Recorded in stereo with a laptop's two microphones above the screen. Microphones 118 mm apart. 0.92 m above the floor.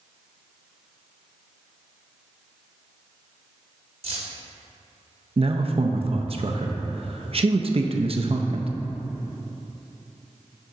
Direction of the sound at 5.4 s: 55° right (ahead or behind).